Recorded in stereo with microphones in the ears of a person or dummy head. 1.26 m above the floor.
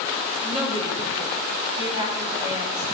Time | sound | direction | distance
0.4 | a woman speaking | 25° right (ahead or behind) | 2.5 m